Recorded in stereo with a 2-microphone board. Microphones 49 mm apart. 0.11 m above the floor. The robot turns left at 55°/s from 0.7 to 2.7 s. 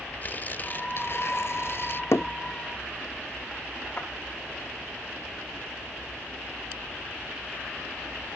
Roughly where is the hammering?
Left.